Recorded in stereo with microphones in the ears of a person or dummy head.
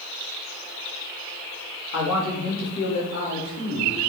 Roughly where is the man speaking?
Left.